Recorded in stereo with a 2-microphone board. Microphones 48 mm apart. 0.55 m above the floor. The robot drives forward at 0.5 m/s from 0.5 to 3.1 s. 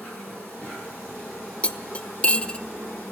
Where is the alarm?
I don't hear an alarm.